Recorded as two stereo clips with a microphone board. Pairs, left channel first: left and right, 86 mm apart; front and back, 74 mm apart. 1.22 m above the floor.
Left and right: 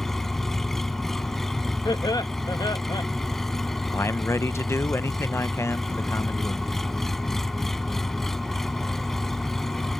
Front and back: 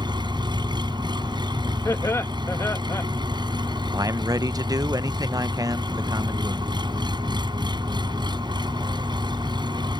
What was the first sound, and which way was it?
An engine running, 175° left.